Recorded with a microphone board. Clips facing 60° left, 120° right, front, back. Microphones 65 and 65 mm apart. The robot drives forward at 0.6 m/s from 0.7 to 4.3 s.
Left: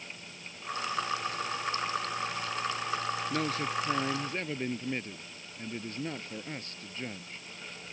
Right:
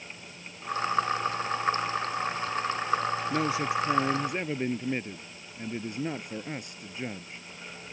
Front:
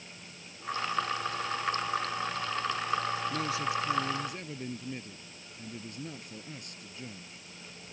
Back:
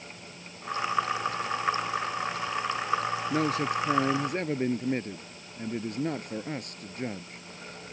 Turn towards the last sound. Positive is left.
turn(degrees=165)